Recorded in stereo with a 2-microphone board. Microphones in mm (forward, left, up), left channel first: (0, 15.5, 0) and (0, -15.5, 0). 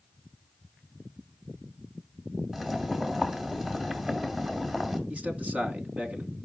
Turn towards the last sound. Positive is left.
turn(degrees=-45)  # may be behind; listen again after turning